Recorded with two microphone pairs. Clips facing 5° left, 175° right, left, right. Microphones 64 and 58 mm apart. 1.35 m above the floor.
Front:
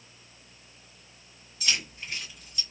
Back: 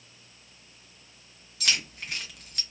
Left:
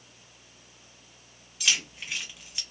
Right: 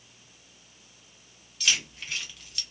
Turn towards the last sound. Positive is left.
turn(degrees=155)